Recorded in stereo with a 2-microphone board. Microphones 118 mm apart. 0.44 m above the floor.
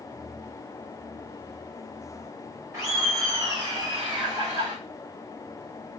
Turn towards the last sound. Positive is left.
turn(degrees=-50)  # may be behind; listen again after turning